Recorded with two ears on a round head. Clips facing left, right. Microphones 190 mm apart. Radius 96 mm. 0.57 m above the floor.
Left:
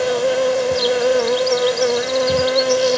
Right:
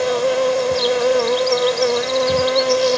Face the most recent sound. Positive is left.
turn(degrees=5)  # may be behind; listen again after turning